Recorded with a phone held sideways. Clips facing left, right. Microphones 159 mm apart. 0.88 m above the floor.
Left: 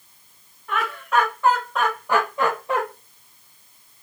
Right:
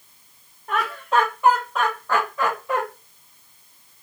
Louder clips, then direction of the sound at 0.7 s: Right 1 dB; 40° right (ahead or behind).